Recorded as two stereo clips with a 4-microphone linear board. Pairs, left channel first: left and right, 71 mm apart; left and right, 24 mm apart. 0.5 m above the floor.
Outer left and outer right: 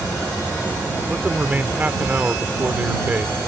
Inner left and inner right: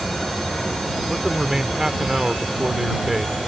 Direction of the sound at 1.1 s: 25° right (ahead or behind).